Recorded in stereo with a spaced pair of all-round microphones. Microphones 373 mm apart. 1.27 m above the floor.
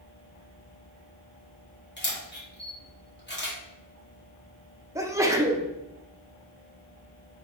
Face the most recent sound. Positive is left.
turn(degrees=-10)  # may be behind; listen again after turning